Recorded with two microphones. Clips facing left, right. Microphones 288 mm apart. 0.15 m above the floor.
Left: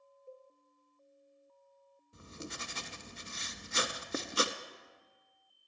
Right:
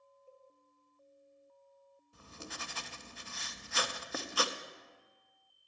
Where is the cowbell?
60° left (ahead or behind), 1.3 m.